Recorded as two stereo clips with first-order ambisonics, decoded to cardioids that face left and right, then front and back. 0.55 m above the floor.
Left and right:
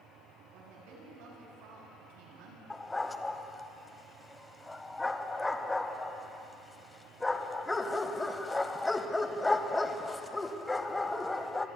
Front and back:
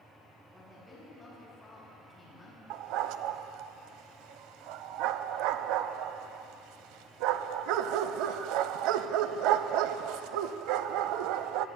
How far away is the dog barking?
About 0.6 m.